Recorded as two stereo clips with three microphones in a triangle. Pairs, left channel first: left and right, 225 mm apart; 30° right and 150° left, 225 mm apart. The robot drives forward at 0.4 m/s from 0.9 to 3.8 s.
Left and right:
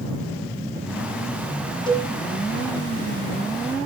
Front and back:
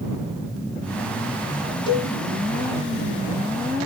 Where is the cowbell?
30° left, 2 m; by 2.1 s 35° left, 2.0 m.